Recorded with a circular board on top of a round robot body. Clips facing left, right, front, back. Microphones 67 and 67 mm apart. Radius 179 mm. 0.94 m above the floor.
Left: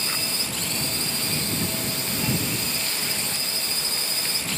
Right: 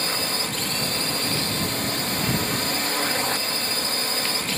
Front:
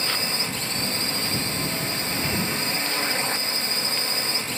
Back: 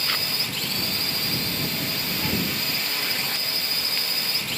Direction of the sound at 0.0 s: 60° right.